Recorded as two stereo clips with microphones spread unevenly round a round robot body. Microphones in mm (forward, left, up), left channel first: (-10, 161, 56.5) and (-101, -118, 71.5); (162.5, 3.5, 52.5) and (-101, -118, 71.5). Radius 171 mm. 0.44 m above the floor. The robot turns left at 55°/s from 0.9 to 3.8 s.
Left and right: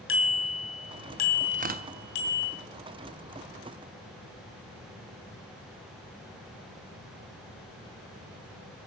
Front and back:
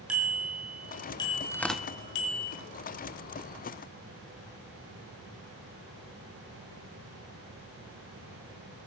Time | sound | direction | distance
0.1 | a bicycle bell | 120° left | 2.5 m
1.5 | tearing paper | 45° right | 0.9 m